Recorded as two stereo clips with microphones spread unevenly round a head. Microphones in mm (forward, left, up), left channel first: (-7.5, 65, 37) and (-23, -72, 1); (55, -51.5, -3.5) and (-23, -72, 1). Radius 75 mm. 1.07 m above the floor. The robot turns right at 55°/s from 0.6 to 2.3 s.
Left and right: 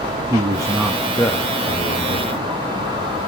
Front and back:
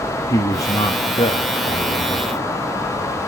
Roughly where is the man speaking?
Ahead right.